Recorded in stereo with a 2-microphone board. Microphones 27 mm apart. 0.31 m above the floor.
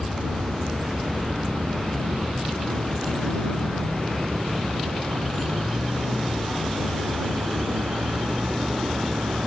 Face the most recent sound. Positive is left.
turn(degrees=-85)